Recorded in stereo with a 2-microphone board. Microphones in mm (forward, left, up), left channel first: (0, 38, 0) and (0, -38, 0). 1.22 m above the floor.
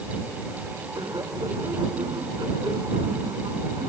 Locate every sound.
0.9 s laughter: 75° right (ahead or behind); by 3.9 s 70° right (ahead or behind)